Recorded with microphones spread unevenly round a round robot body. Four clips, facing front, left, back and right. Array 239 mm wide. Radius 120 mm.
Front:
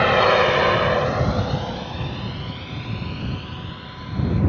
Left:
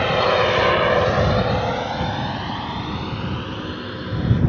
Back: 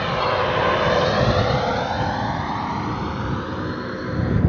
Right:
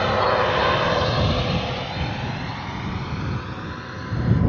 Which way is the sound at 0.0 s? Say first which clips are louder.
Left 2 dB, front 5 dB; 15° left.